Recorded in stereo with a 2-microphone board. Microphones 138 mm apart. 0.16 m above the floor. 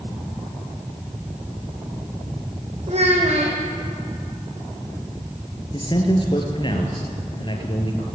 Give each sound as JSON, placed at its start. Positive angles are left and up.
{"t": 2.9, "sound": "a child speaking", "side_deg": -50, "distance_m": 5.0}
{"t": 5.7, "sound": "a man speaking", "side_deg": 35, "distance_m": 3.0}